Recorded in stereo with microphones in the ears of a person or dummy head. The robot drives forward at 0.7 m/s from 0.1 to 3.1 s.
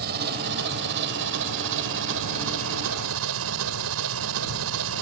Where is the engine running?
55° right (ahead or behind); by 5.0 s 75° right (ahead or behind).